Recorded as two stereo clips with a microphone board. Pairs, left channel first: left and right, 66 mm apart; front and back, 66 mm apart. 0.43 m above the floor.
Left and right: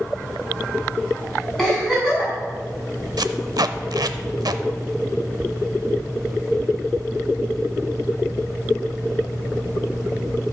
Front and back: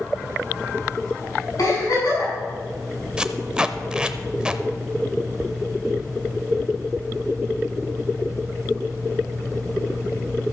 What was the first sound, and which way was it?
A giggle, straight ahead.